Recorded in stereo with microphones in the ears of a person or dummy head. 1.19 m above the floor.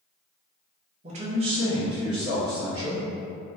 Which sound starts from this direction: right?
A man speaking, at 1.0 s.